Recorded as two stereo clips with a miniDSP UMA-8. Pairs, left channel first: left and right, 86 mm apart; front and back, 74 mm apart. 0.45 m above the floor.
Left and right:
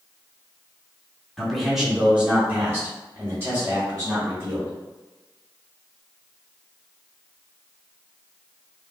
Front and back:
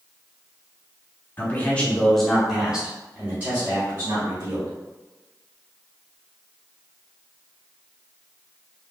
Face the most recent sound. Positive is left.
turn(degrees=-140)